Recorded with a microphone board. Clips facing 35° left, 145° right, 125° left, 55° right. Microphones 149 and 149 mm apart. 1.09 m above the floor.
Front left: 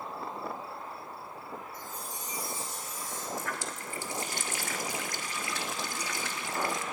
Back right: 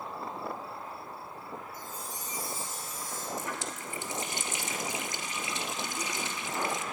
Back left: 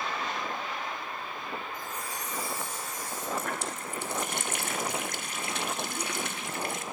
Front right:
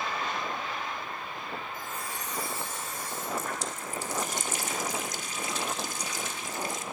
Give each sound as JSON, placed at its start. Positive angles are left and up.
{"t": 1.7, "sound": "a chime", "azimuth_deg": 50, "distance_m": 4.5}
{"t": 3.4, "sound": "a running tap", "azimuth_deg": 145, "distance_m": 1.1}